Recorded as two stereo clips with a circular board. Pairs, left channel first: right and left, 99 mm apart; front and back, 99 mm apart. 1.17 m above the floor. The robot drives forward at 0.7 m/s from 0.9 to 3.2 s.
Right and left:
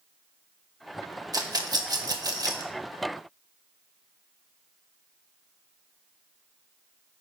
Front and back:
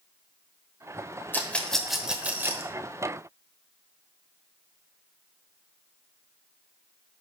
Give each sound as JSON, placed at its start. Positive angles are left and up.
{"t": 1.3, "sound": "a rattle", "azimuth_deg": 65, "distance_m": 1.2}